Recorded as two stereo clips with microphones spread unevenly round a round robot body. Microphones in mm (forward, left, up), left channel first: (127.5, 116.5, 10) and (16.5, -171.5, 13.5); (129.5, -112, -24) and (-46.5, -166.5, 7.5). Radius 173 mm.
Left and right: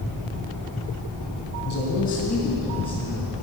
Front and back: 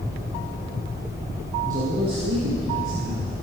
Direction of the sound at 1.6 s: 125° left.